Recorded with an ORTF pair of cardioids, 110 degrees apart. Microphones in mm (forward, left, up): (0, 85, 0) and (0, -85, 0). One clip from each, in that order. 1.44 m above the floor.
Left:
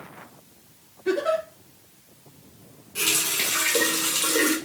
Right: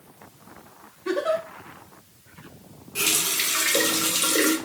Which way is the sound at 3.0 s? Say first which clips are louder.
Even; 20° right.